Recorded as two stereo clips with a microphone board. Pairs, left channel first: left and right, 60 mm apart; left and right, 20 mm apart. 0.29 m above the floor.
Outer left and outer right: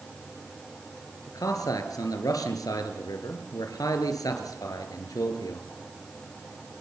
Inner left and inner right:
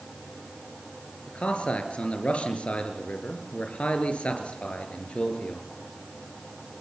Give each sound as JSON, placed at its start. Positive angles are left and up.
{"t": 1.3, "sound": "a man speaking", "side_deg": 75, "distance_m": 4.5}